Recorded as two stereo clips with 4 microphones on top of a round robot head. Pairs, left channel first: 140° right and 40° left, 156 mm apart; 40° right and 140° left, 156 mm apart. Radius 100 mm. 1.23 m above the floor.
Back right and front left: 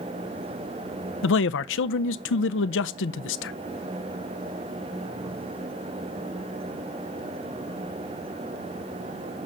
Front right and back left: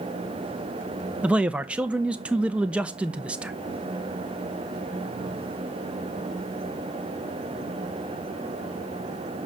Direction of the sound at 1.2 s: 140° right.